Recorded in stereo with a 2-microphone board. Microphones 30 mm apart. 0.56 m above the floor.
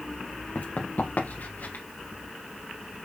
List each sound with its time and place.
0.6 s running footsteps: 65° left (ahead or behind), 2.5 m; by 1.8 s 80° left, 3 m